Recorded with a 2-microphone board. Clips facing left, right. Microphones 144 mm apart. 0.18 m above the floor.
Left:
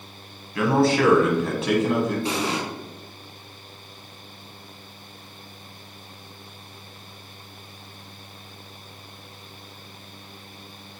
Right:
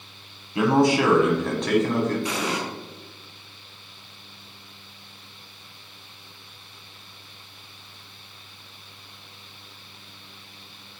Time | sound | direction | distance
0.6 | a man speaking | 25° right (ahead or behind) | 1.3 m
2.2 | an explosion | 30° left (ahead or behind) | 1.5 m